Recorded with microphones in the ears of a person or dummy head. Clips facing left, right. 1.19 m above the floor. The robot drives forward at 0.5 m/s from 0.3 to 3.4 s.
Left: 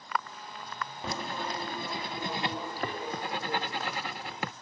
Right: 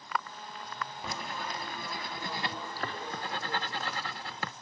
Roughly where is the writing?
Left.